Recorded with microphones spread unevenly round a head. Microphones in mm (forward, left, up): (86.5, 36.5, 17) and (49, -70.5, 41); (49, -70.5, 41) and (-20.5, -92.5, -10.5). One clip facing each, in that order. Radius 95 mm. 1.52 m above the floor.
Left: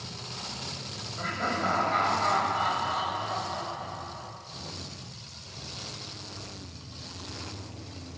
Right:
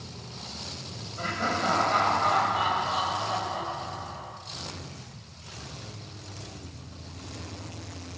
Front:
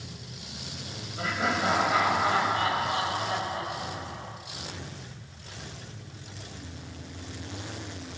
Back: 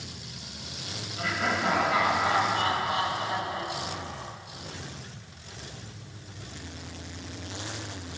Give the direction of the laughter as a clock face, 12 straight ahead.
1 o'clock.